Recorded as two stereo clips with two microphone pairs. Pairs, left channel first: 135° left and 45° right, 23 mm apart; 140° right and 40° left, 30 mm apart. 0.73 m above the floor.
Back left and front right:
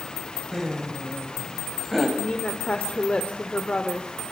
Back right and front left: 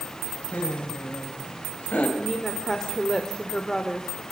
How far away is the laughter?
About 4.5 m.